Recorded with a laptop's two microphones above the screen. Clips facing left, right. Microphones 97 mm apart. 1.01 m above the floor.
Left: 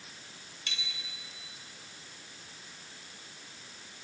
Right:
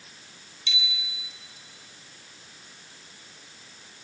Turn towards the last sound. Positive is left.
turn(degrees=50)  # may be behind; listen again after turning